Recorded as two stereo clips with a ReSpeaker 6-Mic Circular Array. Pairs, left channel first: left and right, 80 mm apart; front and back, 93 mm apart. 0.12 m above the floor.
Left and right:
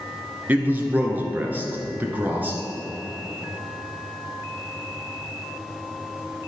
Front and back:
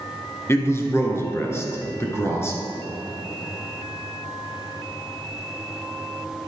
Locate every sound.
0.5 s a man speaking: 40° right, 1.7 m